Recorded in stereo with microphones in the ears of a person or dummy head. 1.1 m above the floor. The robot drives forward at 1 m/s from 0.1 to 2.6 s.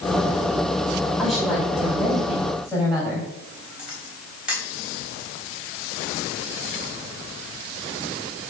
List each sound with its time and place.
1.2 s a woman speaking: 10° left (ahead or behind), 3.5 m; by 3.3 s 5° left (ahead or behind), 5 m
3.8 s a camera shutter: 5° left (ahead or behind), 4 m